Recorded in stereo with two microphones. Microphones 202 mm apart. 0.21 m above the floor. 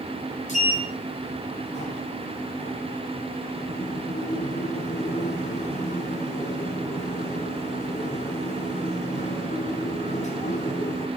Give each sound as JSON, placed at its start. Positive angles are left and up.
{"t": 0.5, "sound": "a sliding door", "side_deg": 35, "distance_m": 2.0}